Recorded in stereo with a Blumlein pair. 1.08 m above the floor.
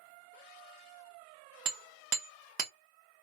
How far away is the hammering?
About 0.7 m.